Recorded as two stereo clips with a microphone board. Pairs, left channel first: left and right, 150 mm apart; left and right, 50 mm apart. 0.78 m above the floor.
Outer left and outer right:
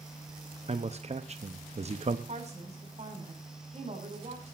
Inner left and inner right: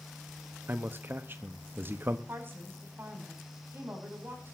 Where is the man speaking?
45° right (ahead or behind), 1.0 m.